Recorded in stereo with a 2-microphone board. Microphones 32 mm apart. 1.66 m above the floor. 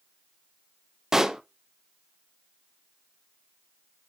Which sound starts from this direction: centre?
A pop, at 1.1 s.